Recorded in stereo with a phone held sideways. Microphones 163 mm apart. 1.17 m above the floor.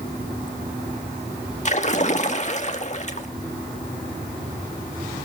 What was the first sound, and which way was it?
A splash, 45° left (ahead or behind).